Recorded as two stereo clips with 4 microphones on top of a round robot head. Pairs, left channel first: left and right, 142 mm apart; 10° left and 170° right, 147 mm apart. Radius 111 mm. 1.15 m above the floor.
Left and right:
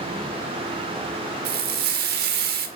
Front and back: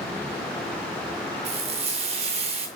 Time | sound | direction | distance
1.4 | frying | 115° right | 2.5 m